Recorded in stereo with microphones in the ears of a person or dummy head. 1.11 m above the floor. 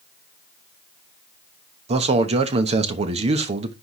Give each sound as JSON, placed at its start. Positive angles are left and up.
{"t": 1.9, "sound": "a man speaking", "side_deg": -35, "distance_m": 1.1}